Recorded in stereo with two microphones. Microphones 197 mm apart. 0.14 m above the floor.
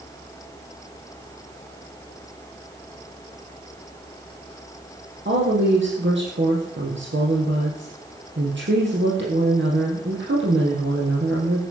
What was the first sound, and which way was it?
A woman speaking, 70° right (ahead or behind).